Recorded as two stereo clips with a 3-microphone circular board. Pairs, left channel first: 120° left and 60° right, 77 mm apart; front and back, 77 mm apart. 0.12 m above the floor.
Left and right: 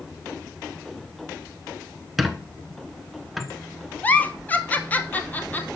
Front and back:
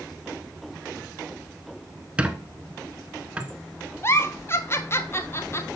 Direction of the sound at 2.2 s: 145° right.